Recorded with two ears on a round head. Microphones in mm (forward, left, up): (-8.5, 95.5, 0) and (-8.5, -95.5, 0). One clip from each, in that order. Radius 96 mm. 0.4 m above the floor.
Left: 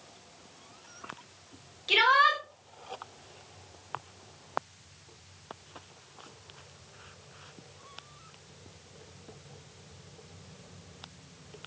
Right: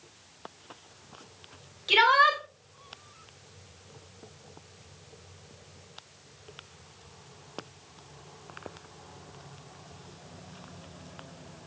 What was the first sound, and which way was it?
A shout, 5° right (ahead or behind).